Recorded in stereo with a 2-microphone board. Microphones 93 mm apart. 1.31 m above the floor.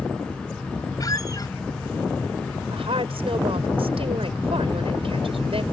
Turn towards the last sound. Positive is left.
turn(degrees=-75)  # may be behind; listen again after turning